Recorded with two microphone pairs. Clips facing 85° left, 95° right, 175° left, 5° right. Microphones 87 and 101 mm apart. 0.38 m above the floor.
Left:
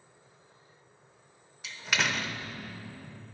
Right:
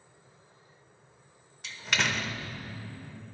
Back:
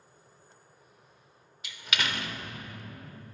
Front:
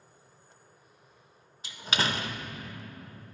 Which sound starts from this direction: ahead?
A door slam, at 1.6 s.